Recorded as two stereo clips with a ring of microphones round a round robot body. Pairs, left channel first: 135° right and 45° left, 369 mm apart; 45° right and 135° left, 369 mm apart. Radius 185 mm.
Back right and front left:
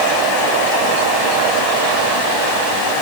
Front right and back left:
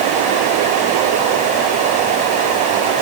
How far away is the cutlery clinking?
I don't hear cutlery clinking.